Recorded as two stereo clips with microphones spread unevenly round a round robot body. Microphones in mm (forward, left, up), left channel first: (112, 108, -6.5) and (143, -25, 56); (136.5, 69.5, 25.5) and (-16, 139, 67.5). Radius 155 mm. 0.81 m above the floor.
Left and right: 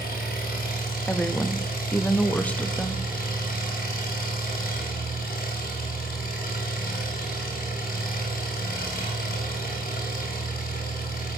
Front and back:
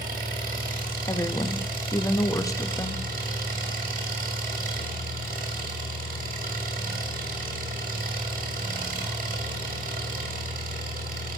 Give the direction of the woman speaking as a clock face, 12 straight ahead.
11 o'clock.